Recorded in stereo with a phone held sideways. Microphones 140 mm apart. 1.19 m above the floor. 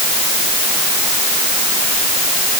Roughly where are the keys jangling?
I don't hear keys jangling.